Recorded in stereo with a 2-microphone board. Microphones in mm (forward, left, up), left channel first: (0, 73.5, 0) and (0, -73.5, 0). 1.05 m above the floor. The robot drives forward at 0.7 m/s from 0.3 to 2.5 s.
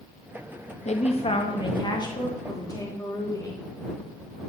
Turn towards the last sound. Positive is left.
turn(degrees=25)  # may be behind; listen again after turning